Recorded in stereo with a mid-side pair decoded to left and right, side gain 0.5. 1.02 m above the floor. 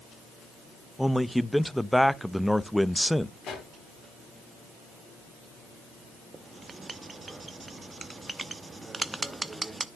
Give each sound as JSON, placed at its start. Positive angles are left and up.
{"t": 1.0, "sound": "a man speaking", "azimuth_deg": 0, "distance_m": 0.7}
{"t": 3.4, "sound": "a pop", "azimuth_deg": 60, "distance_m": 3.5}
{"t": 6.3, "sound": "writing", "azimuth_deg": -25, "distance_m": 0.8}